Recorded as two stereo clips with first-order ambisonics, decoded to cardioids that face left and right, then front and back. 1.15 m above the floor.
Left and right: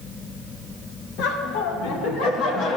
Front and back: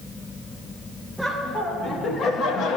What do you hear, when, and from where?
1.2 s laughter: 95° left, 1.1 m; by 2.8 s 40° left, 1.0 m